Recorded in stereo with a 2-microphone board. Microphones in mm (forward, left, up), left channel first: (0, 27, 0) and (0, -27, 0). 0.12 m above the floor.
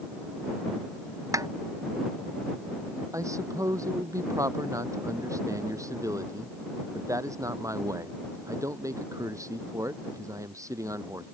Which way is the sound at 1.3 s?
75° right (ahead or behind).